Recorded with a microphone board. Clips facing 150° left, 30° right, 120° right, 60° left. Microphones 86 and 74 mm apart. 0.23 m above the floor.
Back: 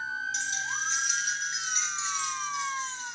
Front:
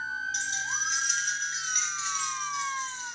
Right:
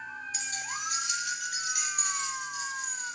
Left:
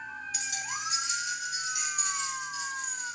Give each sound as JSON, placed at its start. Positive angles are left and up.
{"t": 0.3, "sound": "keys jangling", "azimuth_deg": -65, "distance_m": 1.2}